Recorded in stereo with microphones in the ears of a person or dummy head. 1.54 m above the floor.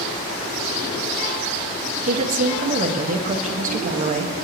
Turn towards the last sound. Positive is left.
turn(degrees=-45)  # may be behind; listen again after turning